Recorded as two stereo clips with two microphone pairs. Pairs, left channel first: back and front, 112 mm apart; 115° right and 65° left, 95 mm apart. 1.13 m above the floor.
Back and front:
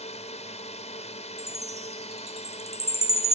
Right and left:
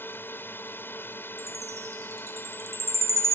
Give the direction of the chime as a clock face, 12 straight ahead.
12 o'clock.